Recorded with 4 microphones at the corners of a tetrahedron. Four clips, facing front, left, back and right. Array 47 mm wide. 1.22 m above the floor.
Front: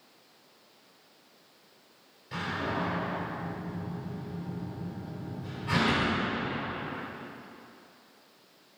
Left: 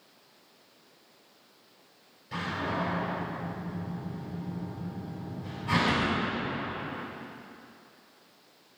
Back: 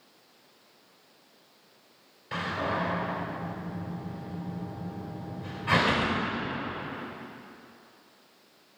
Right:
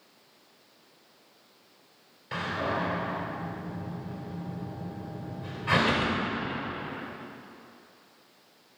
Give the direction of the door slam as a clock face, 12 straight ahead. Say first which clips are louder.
Right 2 dB, back 2 dB; 4 o'clock.